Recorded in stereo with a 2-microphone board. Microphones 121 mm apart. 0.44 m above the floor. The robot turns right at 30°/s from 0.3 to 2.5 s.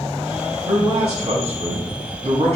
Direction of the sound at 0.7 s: 125° right.